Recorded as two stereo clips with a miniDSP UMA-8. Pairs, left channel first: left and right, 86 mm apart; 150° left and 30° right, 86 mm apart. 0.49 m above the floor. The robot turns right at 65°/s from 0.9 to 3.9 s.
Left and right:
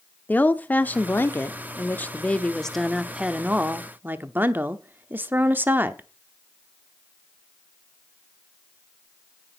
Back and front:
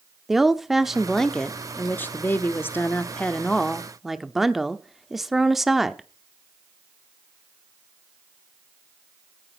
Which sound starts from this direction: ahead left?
A woman speaking, at 0.3 s.